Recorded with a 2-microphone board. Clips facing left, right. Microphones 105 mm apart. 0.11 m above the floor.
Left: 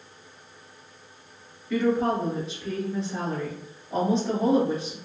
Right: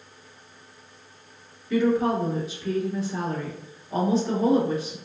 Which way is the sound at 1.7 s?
Centre (ahead or behind).